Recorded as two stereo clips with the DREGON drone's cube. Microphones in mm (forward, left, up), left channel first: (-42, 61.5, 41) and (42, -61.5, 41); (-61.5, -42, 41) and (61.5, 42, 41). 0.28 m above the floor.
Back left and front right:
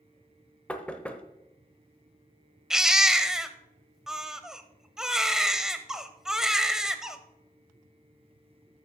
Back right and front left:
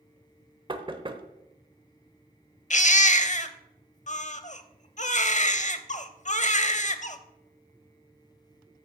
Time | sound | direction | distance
0.7 | knocking | 50° left | 0.9 m
2.7 | a baby crying | 140° right | 0.7 m